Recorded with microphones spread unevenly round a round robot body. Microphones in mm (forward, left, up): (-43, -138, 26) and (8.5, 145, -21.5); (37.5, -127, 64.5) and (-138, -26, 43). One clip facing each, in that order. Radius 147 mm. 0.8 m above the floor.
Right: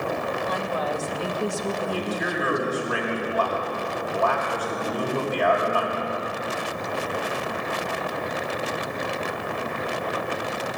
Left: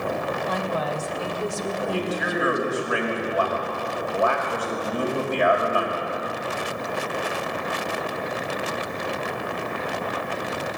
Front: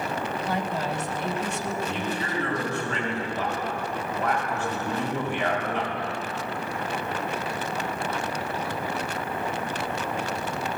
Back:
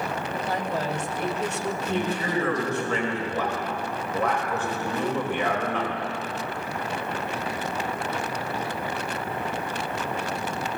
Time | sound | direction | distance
0.5 | a woman speaking | 155° right | 3 m
1.9 | a man speaking | 150° left | 5 m